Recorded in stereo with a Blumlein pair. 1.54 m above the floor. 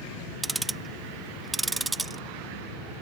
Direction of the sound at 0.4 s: 10° right.